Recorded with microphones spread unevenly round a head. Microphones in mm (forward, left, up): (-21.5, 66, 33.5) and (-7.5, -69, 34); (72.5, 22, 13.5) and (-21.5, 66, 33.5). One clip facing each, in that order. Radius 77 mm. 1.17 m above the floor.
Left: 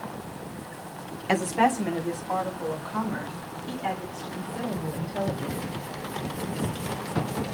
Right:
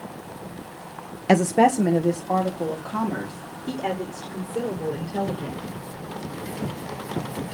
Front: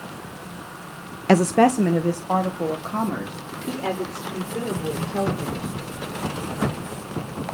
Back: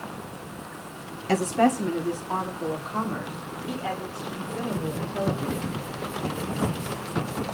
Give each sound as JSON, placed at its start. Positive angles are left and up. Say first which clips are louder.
{"t": 1.3, "sound": "a woman speaking", "louder": "right 6 dB, front 5 dB", "azimuth_deg": -40, "distance_m": 0.5}